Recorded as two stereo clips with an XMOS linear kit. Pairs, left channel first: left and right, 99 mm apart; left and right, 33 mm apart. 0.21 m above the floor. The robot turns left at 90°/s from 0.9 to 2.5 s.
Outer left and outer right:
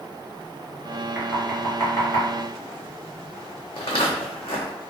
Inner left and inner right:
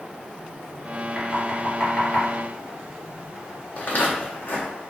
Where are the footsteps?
80° left, 0.7 m.